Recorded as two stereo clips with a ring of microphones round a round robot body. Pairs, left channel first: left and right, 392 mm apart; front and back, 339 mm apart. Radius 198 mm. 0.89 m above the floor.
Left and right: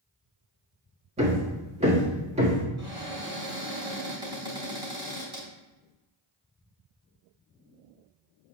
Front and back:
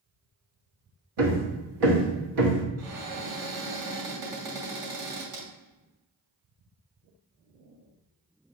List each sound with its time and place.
1.2 s hammering: 165° right, 1.5 m
2.8 s a cupboard door: 170° right, 3 m